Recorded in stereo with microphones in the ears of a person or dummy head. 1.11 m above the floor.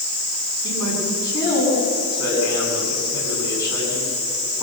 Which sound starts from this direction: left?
A man speaking, at 0.6 s.